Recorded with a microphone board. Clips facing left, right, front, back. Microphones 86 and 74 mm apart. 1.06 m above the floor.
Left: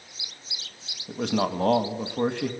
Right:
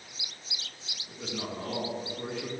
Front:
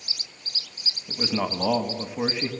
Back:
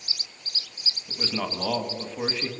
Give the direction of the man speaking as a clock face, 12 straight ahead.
9 o'clock.